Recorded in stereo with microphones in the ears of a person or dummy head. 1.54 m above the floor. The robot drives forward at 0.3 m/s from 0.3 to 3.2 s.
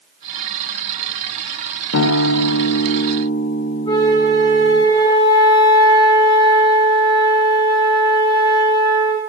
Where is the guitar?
70° left (ahead or behind), 0.7 m; by 4.8 s 45° left (ahead or behind), 0.9 m.